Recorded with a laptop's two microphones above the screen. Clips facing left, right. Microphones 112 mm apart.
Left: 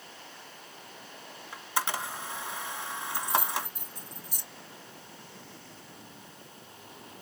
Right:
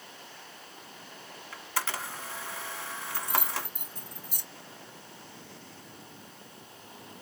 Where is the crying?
I don't hear crying.